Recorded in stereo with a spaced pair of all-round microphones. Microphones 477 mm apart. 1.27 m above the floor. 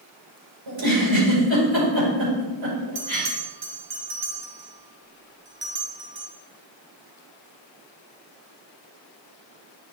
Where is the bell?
50° right (ahead or behind), 1.2 m.